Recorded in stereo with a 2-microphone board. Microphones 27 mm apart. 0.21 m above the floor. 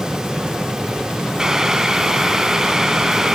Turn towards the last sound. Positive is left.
turn(degrees=-25)  # may be behind; listen again after turning